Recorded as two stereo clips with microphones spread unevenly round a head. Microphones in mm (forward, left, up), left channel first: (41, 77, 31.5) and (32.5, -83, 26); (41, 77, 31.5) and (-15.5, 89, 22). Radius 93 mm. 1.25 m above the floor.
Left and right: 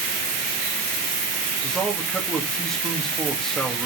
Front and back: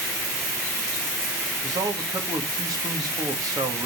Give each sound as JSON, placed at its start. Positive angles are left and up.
{"t": 1.6, "sound": "a man speaking", "azimuth_deg": 175, "distance_m": 2.5}